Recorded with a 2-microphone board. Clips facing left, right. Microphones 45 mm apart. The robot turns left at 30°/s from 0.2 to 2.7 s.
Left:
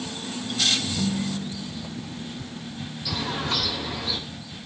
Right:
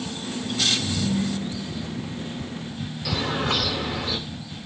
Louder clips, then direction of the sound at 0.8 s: Right 2 dB; 10° right (ahead or behind).